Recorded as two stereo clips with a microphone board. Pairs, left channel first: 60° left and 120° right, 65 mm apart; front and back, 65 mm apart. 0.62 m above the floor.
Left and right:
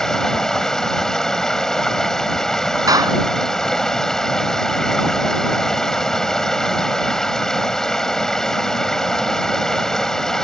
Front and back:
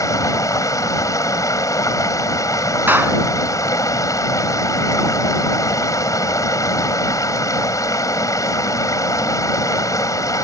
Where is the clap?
120° right.